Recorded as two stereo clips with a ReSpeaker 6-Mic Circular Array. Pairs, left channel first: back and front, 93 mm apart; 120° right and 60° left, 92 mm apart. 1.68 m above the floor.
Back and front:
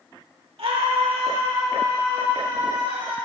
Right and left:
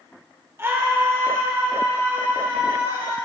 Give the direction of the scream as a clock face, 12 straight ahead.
12 o'clock.